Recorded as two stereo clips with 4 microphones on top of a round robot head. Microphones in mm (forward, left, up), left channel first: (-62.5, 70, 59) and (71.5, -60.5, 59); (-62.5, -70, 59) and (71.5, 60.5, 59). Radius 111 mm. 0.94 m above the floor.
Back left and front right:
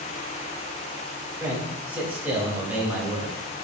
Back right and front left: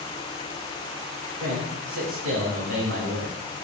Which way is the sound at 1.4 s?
35° left.